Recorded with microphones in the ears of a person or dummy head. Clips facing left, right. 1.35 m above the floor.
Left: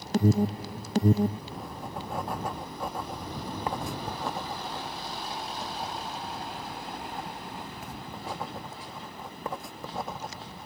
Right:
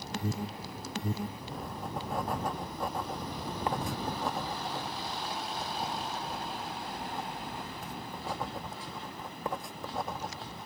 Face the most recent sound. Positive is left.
turn(degrees=0)  # may be behind; listen again after turning